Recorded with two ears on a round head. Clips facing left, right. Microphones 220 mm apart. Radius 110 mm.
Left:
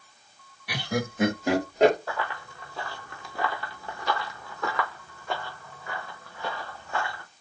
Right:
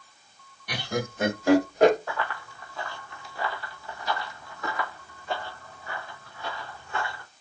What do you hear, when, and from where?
0.7 s laughter: 5° left (ahead or behind), 1.3 m; by 2.0 s 20° left (ahead or behind), 1.8 m
2.1 s running footsteps: 10° left (ahead or behind), 0.9 m; by 7.2 s 45° left (ahead or behind), 2 m